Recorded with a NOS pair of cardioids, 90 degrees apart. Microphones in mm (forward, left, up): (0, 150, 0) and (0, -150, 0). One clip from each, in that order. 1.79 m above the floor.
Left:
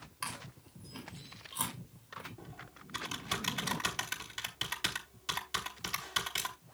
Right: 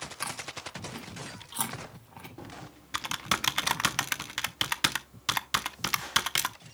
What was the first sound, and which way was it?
Chewing, 65° right.